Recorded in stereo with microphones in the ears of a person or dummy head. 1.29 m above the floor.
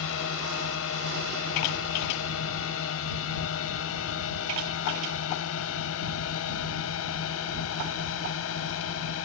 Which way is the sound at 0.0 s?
75° left (ahead or behind).